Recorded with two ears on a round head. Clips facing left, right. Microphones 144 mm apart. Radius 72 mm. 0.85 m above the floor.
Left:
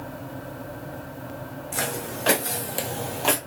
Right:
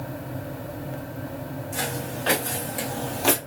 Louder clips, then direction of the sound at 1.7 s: Left 1 dB; 70° left (ahead or behind).